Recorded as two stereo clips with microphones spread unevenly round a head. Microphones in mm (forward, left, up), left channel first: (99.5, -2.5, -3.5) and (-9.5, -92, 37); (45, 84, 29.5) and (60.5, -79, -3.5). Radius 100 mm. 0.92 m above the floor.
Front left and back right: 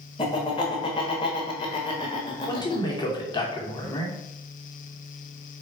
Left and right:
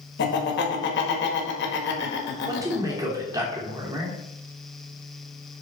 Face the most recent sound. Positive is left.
turn(degrees=-15)